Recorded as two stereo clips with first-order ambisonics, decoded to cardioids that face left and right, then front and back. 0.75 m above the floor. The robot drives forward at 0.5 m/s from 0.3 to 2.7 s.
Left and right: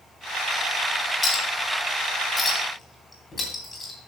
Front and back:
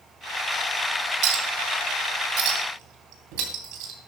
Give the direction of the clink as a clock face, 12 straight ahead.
7 o'clock.